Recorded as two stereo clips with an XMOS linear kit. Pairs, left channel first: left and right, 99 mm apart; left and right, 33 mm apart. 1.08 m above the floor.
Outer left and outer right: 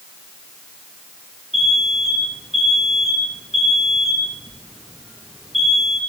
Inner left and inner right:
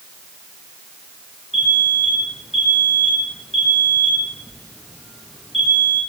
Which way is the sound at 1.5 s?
Centre (ahead or behind).